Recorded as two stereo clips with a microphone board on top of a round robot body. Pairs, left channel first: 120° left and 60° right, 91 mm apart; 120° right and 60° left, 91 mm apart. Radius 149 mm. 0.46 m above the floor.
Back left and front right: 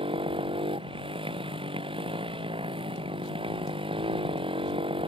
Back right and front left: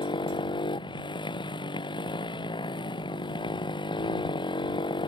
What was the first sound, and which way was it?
A motorcycle, 85° right.